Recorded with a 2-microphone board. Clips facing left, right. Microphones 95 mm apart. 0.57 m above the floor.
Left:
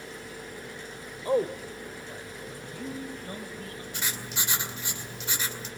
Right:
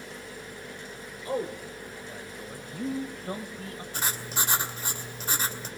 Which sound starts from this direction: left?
A man speaking, at 1.2 s.